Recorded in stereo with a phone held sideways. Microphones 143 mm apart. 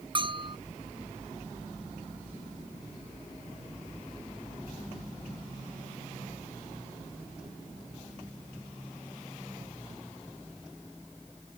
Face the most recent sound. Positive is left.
turn(degrees=-35)  # may be behind; listen again after turning